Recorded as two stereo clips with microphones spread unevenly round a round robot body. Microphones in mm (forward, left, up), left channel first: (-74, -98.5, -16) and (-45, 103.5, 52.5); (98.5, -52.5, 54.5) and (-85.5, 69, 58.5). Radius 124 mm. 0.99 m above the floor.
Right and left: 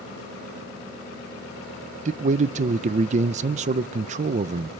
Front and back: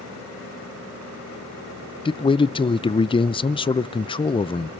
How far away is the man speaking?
About 0.5 m.